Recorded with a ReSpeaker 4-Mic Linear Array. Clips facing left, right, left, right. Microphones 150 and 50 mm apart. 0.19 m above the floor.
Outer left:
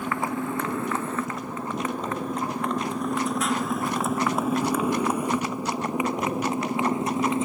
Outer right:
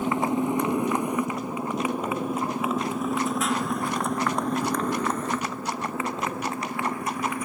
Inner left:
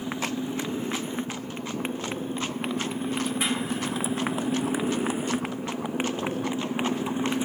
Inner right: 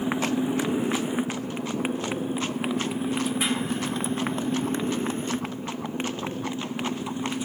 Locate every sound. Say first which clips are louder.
0.0 s a motorcycle: outer right 4 dB, inner right 5 dB; 20° right (ahead or behind); by 7.5 s 25° left (ahead or behind)